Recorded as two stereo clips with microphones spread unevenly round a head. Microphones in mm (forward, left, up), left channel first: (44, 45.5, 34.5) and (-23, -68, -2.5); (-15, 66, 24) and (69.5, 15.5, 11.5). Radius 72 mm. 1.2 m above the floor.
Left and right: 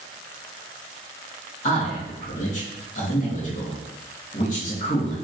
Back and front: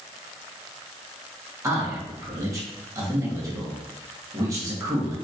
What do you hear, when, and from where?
1.6 s a man speaking: 30° left, 1.5 m